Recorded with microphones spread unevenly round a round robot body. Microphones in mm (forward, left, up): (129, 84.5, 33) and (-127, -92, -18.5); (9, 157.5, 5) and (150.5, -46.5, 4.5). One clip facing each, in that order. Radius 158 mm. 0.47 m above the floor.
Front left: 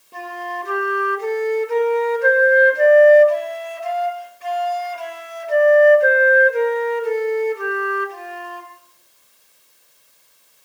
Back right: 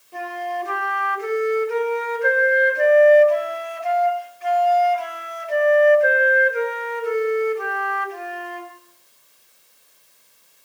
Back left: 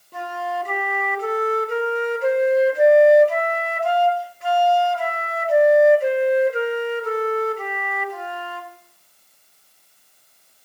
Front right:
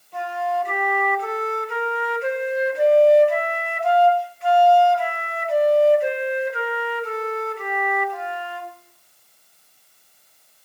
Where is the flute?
85° left, 2 m.